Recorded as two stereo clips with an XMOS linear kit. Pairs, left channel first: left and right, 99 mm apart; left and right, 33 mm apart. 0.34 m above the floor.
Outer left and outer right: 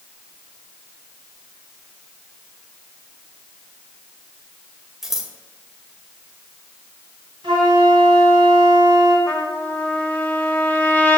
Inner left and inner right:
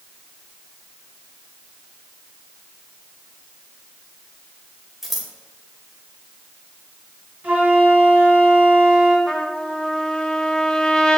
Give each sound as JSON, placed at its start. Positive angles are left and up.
{"t": 5.0, "sound": "scissors", "side_deg": -5, "distance_m": 1.5}
{"t": 7.4, "sound": "a flute", "side_deg": -55, "distance_m": 3.0}
{"t": 9.3, "sound": "a trumpet", "side_deg": 20, "distance_m": 1.2}